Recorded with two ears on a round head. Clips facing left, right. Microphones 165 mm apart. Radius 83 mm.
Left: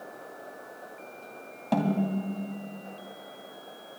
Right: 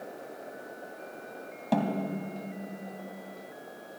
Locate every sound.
1.7 s a snare drum: 5° right (ahead or behind), 2.5 m